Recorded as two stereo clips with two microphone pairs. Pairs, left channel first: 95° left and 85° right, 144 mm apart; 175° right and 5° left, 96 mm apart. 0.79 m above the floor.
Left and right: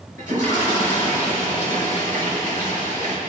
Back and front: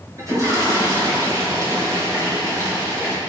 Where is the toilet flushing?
50° right, 5 m.